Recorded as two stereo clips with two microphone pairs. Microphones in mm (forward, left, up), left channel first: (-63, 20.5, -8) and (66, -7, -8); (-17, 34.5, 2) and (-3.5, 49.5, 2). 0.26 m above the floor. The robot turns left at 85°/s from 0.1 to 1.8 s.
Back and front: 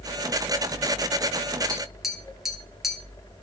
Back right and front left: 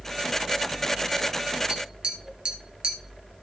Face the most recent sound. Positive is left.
turn(degrees=75)